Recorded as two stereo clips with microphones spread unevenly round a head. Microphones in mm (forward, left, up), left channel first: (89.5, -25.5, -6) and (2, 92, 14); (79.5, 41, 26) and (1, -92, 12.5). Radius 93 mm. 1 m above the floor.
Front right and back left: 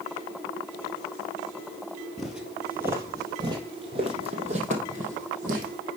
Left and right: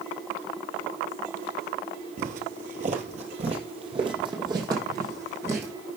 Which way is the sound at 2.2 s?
150° right.